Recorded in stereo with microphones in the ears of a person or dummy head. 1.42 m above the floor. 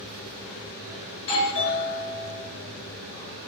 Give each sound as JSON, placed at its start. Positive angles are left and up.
{"t": 1.1, "sound": "a doorbell", "side_deg": 65, "distance_m": 2.0}